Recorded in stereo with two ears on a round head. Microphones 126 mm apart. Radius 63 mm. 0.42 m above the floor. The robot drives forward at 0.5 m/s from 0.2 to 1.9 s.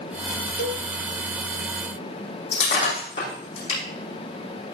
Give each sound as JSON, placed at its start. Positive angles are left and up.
{"t": 0.6, "sound": "a cowbell", "side_deg": 80, "distance_m": 0.7}
{"t": 2.5, "sound": "breaking glass", "side_deg": 45, "distance_m": 8.5}